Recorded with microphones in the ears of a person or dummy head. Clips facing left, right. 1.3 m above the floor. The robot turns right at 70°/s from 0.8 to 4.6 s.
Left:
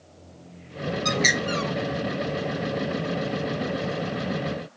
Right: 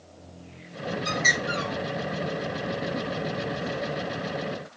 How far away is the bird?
About 1.0 m.